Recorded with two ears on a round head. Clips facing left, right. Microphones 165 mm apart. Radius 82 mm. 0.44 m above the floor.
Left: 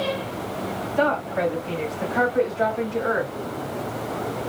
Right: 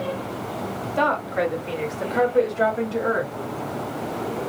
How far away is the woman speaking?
About 1.8 m.